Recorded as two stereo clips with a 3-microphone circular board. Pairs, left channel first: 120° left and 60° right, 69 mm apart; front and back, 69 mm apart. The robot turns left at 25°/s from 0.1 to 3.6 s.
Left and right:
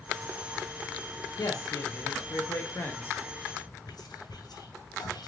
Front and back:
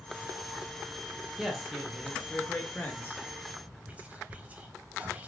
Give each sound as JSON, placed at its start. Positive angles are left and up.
{"t": 1.4, "sound": "a man speaking", "azimuth_deg": 100, "distance_m": 0.7}
{"t": 3.9, "sound": "whispering", "azimuth_deg": 110, "distance_m": 0.5}